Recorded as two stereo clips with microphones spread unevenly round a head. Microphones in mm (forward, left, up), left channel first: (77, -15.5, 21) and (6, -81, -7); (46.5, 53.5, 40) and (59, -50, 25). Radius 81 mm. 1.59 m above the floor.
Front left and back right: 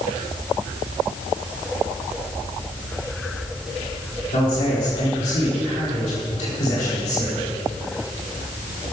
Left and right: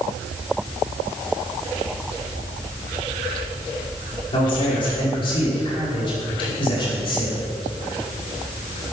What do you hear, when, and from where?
4.3 s a man speaking: 60° left, 5 m